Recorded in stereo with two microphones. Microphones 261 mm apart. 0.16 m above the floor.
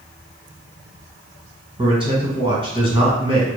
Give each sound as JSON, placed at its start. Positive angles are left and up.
{"t": 1.8, "sound": "a man speaking", "side_deg": -20, "distance_m": 1.2}